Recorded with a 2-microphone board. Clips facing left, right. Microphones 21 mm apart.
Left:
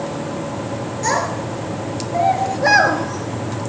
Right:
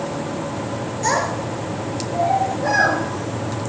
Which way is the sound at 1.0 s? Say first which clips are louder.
Even; 5° left (ahead or behind).